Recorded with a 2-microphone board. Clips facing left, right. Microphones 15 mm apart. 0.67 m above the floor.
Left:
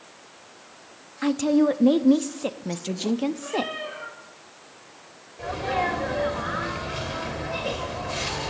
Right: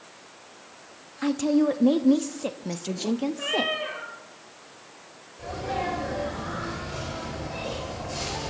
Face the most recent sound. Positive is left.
turn(degrees=35)  # may be behind; listen again after turning